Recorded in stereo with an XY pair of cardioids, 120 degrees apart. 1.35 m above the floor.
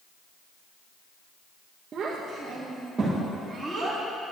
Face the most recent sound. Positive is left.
turn(degrees=-15)